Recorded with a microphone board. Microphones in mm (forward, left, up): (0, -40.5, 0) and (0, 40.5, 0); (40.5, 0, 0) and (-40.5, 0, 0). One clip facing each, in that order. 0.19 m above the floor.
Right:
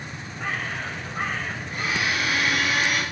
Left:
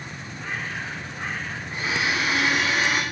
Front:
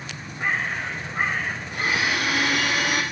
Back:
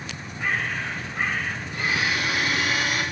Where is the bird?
60° right, 8.5 m.